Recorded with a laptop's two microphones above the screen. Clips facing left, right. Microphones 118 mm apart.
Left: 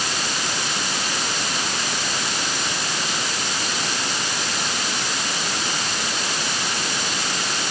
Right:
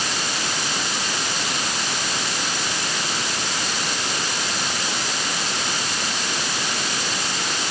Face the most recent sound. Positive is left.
No sound to turn to.